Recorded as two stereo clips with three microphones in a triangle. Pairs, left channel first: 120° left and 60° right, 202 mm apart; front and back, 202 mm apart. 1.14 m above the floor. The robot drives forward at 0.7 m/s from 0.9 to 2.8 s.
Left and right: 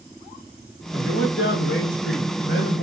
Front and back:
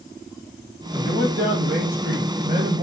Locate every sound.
0.9 s a man speaking: 130° left, 3 m; by 2.8 s 145° left, 4 m